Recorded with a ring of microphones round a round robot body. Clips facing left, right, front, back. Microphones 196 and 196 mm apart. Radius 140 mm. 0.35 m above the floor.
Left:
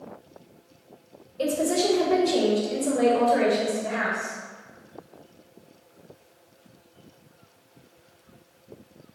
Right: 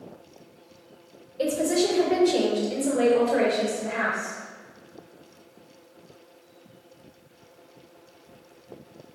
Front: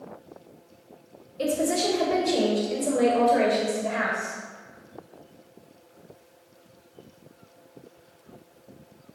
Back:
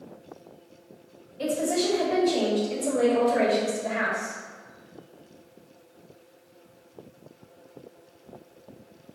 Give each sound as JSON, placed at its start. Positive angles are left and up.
{"t": 1.4, "sound": "a woman speaking", "azimuth_deg": -20, "distance_m": 2.0}